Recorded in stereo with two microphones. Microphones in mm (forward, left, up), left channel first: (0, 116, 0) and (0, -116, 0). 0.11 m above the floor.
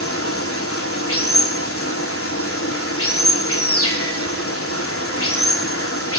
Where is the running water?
70° left (ahead or behind), 3 m.